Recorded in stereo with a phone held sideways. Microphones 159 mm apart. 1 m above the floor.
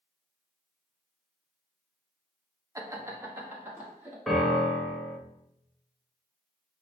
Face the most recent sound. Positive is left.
turn(degrees=0)  # may be behind; listen again after turning